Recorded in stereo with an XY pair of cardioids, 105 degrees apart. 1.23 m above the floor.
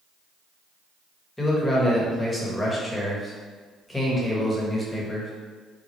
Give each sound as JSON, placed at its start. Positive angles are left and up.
{"t": 1.4, "sound": "a man speaking", "azimuth_deg": 15, "distance_m": 1.2}